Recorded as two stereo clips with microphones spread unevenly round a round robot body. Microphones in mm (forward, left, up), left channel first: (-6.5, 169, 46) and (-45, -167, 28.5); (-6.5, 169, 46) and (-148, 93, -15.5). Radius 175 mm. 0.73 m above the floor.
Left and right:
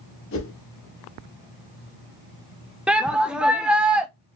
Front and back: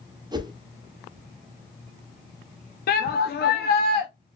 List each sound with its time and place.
0.3 s a whoosh: 130° left, 1.0 m
2.9 s a shout: 15° right, 0.7 m